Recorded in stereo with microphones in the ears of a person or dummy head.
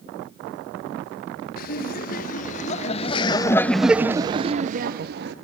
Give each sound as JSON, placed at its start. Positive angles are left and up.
{"t": 1.6, "sound": "laughter", "side_deg": 45, "distance_m": 1.7}